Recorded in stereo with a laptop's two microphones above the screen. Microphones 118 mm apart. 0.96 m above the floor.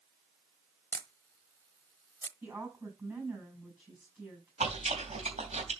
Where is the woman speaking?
25° right (ahead or behind), 6 m.